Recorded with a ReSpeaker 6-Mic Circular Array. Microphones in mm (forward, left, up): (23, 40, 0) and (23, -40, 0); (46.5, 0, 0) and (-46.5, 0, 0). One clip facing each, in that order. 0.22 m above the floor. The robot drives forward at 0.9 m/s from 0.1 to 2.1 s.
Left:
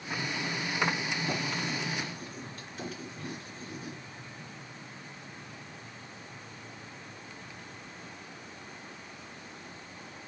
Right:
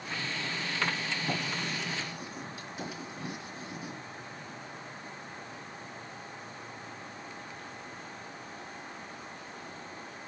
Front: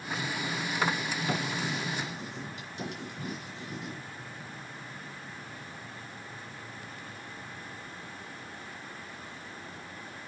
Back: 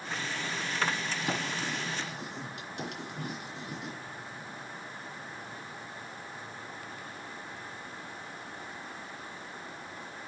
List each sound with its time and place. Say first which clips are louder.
1.3 s writing: even, front 1 dB; 165° right, 3 m; by 4.0 s 170° right, 3.5 m